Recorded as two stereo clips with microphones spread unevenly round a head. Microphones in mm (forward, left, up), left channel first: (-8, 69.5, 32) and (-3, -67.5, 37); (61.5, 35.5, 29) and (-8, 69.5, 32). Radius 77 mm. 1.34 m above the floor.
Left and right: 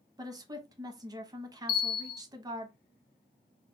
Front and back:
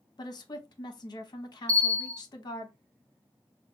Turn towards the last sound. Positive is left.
turn(degrees=105)